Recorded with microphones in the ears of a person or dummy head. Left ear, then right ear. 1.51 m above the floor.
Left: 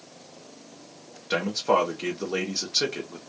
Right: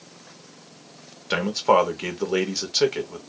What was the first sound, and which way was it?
A man speaking, 25° right (ahead or behind).